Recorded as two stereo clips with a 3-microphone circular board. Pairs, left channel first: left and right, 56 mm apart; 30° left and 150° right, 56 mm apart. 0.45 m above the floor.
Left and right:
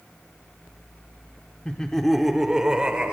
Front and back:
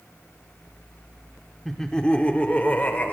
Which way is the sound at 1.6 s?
100° left.